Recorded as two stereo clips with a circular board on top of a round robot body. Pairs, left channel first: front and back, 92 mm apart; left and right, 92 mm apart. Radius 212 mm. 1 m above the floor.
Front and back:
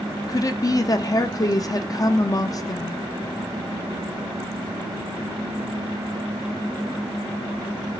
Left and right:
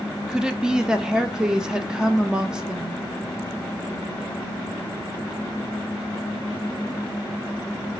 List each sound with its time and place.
0.3 s a woman speaking: 10° right, 0.8 m